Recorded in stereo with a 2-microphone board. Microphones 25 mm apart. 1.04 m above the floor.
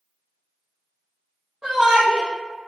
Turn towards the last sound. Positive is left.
turn(degrees=-25)  # may be behind; listen again after turning